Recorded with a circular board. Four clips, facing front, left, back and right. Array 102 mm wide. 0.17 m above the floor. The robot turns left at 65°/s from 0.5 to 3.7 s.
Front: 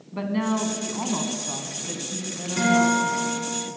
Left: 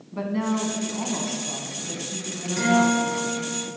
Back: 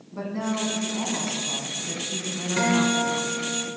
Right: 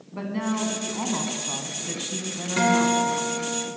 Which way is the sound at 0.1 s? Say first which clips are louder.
Left 2 dB, front 3 dB; 5° right.